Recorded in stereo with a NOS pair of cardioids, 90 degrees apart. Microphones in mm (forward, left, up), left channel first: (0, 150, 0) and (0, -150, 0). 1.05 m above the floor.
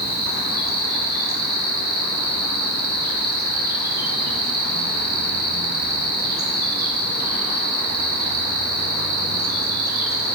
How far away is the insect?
About 3 m.